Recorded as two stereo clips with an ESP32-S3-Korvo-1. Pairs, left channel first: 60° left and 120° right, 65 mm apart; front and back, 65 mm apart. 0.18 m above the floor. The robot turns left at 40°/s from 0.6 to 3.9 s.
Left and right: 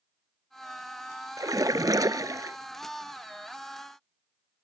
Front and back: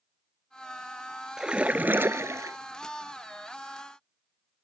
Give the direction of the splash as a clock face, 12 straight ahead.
3 o'clock.